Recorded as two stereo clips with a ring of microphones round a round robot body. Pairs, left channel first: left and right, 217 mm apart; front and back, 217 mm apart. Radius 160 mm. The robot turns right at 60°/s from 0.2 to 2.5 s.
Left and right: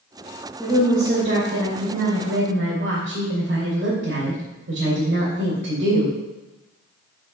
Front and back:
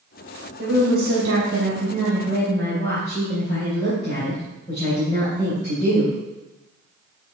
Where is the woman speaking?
175° right, 2.5 m; by 6.1 s 60° right, 2.5 m.